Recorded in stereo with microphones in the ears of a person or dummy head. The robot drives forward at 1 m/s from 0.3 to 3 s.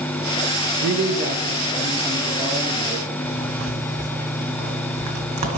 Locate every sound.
0.8 s a man speaking: 70° right (ahead or behind), 0.6 m; by 3.1 s 15° right (ahead or behind), 2.5 m
3.2 s a zipper: 35° right (ahead or behind), 2 m